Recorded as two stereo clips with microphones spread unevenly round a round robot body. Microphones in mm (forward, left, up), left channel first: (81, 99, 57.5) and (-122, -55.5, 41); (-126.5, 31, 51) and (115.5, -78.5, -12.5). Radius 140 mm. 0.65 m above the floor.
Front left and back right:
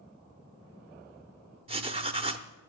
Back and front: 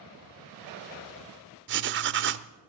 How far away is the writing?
About 0.7 m.